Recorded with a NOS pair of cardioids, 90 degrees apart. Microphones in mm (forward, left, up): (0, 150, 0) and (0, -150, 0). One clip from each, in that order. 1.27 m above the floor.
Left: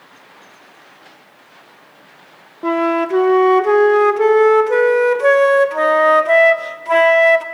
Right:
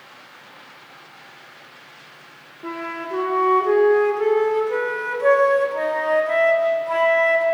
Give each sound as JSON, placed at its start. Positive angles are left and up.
{"t": 2.6, "sound": "a flute", "azimuth_deg": 50, "distance_m": 0.8}